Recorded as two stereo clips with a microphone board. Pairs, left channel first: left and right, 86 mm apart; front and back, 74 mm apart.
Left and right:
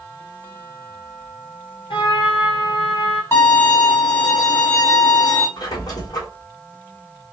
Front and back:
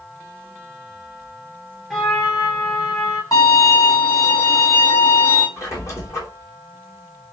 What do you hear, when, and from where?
1.9 s a trumpet: 85° left, 1.2 m
3.3 s a violin: 30° left, 2.5 m
5.6 s a squeak: 45° left, 1.9 m